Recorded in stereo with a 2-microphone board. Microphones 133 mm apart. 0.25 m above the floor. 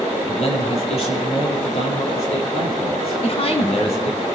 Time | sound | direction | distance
0.3 | a man speaking | 50° left (ahead or behind) | 5 m
3.2 | a woman speaking | 50° left (ahead or behind) | 2 m